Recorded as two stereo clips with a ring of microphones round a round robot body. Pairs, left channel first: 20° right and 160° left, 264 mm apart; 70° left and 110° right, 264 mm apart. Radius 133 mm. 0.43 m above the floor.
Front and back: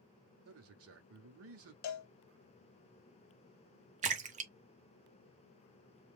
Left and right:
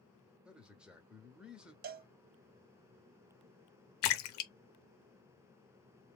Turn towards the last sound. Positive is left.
turn(degrees=95)